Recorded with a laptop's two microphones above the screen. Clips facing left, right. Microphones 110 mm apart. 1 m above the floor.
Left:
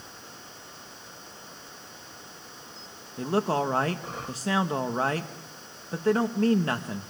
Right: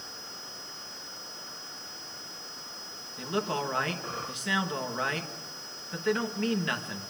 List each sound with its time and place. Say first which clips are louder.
3.2 s a man speaking: left 5 dB; 35° left (ahead or behind), 1.4 m